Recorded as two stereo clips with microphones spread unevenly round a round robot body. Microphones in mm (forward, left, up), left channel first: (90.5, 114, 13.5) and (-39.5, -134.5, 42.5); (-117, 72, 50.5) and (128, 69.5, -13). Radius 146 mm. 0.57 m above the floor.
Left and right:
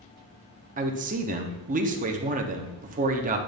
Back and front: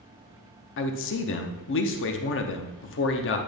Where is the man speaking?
165° right, 0.8 m.